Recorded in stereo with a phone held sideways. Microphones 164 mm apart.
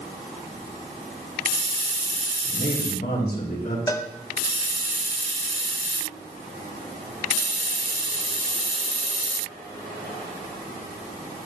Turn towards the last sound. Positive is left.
turn(degrees=20)  # may be behind; listen again after turning